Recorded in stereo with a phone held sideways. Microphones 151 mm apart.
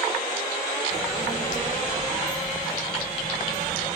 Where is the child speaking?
55° left (ahead or behind), 3.5 m.